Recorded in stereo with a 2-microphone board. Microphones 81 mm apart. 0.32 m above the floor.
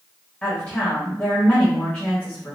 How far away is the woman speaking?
About 1.2 m.